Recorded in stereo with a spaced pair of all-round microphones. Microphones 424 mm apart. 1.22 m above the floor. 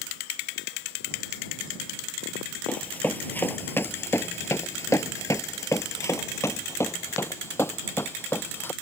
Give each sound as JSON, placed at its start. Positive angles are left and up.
{"t": 2.7, "sound": "running footsteps", "side_deg": 5}